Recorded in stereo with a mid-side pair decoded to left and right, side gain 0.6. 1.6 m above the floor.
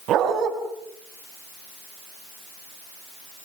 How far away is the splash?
I don't hear a splash.